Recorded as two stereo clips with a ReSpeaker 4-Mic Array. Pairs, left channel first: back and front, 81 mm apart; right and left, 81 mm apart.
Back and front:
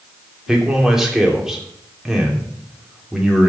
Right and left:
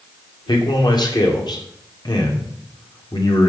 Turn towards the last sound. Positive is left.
turn(degrees=-85)